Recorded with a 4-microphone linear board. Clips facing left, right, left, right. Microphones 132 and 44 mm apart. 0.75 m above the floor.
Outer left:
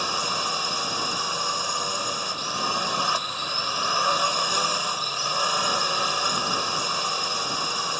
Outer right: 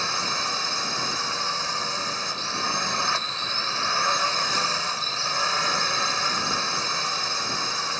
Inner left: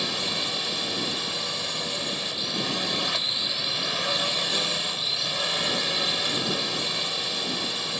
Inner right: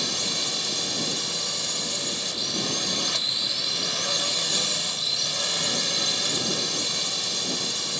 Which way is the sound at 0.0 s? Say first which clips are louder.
Outer left 1 dB, inner left 1 dB; 15° left (ahead or behind).